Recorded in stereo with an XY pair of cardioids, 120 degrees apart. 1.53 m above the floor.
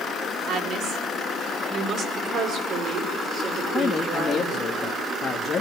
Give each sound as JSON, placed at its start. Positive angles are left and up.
{"t": 0.5, "sound": "a woman speaking", "azimuth_deg": -65, "distance_m": 4.0}
{"t": 2.2, "sound": "a woman speaking", "azimuth_deg": -55, "distance_m": 5.5}
{"t": 3.7, "sound": "a man speaking", "azimuth_deg": 30, "distance_m": 1.9}